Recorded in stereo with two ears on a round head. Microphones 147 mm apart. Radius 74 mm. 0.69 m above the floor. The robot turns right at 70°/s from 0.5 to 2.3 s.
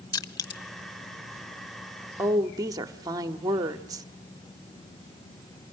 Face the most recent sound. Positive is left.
turn(degrees=-25)  # may be behind; listen again after turning